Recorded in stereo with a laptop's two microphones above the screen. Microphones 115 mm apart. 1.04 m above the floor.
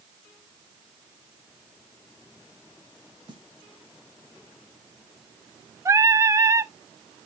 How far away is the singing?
About 0.5 m.